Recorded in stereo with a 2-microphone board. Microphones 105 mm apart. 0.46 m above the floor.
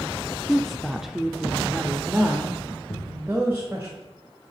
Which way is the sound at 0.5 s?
Centre (ahead or behind).